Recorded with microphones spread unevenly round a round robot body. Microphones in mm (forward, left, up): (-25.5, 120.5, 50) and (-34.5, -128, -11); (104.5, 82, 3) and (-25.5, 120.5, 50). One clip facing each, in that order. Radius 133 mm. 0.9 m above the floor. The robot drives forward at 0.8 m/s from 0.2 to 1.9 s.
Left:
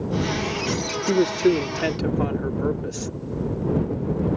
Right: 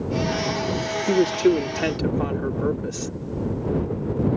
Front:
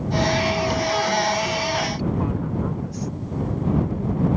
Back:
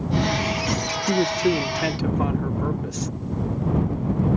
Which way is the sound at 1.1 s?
Straight behind.